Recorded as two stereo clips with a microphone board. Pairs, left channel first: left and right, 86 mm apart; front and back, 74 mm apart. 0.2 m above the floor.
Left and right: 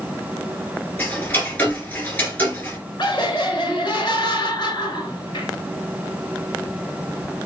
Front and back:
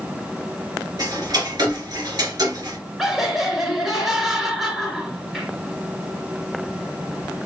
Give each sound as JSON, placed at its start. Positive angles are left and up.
{"t": 1.0, "sound": "ticking", "azimuth_deg": 160, "distance_m": 1.9}
{"t": 3.0, "sound": "laughter", "azimuth_deg": 90, "distance_m": 2.5}